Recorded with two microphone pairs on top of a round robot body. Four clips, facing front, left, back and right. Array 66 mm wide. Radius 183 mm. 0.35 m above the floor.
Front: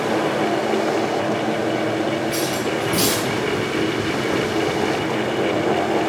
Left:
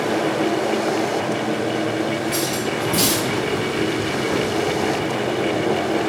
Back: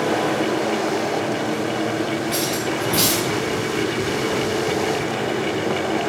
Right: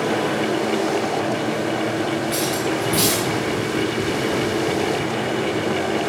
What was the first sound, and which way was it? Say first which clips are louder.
Cutlery clinking: right 1 dB, front 1 dB; 170° right.